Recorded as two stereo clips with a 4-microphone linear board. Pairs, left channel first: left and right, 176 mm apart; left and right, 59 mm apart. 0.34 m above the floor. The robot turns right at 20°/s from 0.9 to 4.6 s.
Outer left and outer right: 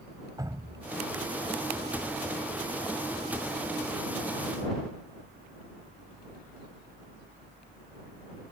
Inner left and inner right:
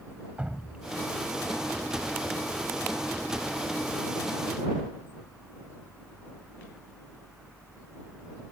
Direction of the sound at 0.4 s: 20° right (ahead or behind).